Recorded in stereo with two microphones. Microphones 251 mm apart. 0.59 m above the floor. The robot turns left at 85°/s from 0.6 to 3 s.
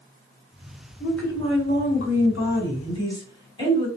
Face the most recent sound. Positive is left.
turn(degrees=20)